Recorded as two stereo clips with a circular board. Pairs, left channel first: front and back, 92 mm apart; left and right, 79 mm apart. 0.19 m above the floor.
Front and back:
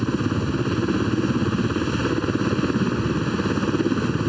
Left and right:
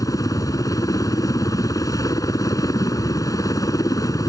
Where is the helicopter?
90° left.